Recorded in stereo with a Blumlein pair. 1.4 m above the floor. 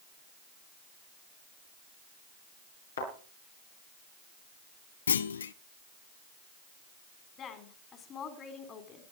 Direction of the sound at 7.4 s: 25° left.